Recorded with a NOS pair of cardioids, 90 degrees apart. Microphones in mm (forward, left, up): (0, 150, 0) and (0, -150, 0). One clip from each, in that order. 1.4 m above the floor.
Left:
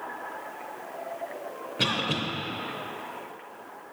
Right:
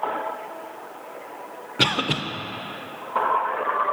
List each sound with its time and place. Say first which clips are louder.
1.8 s a cough: right 5 dB; 25° right, 0.5 m